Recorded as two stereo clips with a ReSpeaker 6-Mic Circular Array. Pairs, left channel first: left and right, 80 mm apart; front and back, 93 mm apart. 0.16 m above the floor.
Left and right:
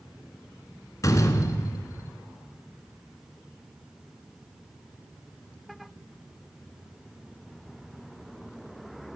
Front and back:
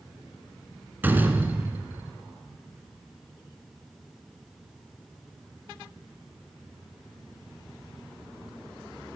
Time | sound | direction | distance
1.0 | a door slam | 115° left | 1.2 m